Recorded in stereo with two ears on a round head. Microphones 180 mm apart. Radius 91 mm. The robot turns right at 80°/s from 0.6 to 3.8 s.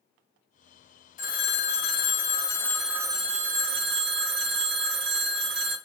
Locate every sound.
1.2 s a phone ringing: 50° left, 0.6 m; by 5.8 s 100° right, 0.6 m